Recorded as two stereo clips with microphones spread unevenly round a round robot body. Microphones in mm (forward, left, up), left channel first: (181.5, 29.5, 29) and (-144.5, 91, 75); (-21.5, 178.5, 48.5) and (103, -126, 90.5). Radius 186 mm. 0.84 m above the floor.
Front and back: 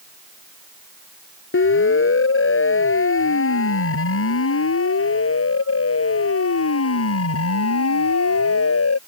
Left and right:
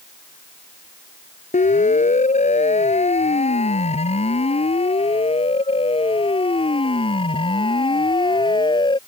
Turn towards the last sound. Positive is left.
turn(degrees=35)